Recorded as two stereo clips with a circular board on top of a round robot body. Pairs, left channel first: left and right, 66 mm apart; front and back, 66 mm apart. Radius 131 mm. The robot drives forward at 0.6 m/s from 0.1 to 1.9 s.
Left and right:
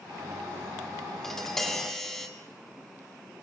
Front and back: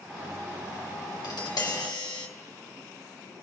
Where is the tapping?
5° left, 2.5 m.